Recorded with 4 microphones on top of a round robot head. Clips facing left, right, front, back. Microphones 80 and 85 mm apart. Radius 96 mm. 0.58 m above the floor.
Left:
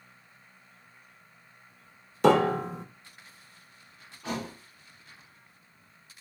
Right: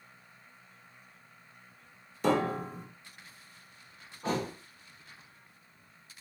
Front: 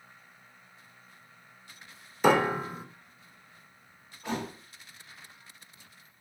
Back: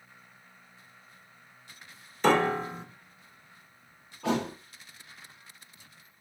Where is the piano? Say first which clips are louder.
Left 7 dB, even; 80° left, 1.1 m.